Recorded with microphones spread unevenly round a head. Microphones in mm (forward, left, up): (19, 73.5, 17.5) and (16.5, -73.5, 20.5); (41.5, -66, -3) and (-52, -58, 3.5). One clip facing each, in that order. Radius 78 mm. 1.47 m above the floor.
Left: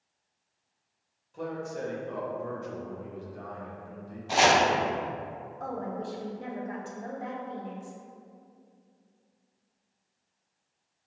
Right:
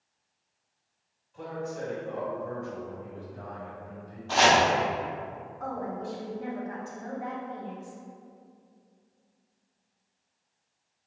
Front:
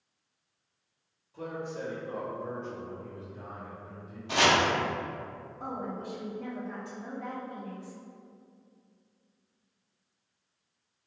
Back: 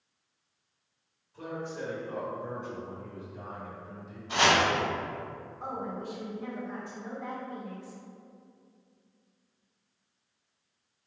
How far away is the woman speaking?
About 0.9 m.